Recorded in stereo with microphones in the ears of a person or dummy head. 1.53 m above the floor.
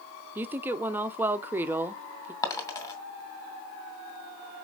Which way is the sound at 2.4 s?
20° left (ahead or behind).